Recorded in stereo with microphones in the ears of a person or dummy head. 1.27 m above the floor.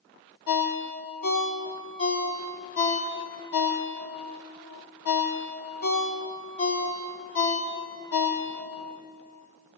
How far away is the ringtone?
About 1.3 m.